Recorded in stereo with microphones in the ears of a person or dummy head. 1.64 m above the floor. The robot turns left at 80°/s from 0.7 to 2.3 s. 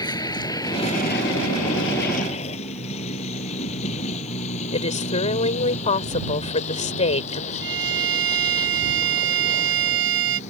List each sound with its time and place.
0.0 s a vehicle: 20° left (ahead or behind); by 10.5 s 40° left (ahead or behind)
4.7 s a woman speaking: 35° left (ahead or behind)
7.6 s a violin: 65° right (ahead or behind)